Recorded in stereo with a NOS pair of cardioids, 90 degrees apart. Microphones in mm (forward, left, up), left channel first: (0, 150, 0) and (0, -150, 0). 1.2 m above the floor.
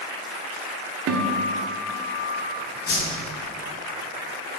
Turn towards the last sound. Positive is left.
turn(degrees=50)